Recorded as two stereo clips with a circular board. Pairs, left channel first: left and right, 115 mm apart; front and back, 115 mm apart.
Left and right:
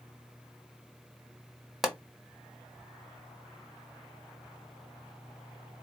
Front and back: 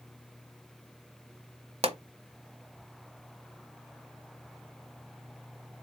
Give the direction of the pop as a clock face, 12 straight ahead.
6 o'clock.